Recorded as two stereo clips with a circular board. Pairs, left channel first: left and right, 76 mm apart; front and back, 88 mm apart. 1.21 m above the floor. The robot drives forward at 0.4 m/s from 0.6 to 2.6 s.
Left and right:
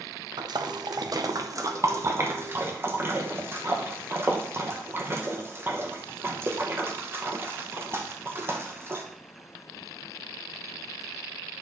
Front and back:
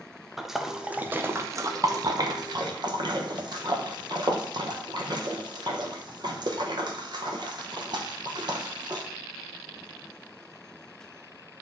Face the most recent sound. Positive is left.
turn(degrees=-150)